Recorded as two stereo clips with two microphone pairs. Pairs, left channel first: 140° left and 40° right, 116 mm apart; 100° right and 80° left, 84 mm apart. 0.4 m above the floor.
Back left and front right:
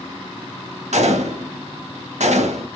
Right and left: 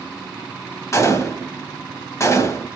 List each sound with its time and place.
0.9 s a gunshot: 45° right, 0.6 m